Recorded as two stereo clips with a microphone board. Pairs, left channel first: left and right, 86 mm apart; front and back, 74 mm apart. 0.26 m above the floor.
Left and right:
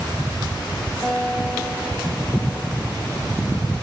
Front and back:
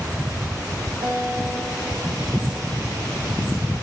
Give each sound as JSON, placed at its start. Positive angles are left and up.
{"t": 1.0, "sound": "a guitar", "azimuth_deg": 165, "distance_m": 5.5}